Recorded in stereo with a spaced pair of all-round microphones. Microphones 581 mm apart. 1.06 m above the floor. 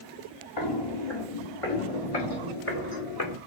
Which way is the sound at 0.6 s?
45° left (ahead or behind).